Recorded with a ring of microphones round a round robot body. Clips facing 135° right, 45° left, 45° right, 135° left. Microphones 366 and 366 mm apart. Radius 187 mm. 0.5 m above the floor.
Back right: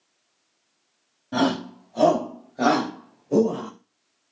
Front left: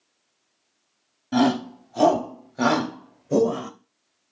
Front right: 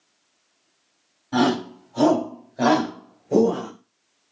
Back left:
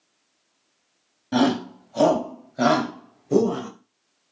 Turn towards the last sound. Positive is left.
turn(degrees=80)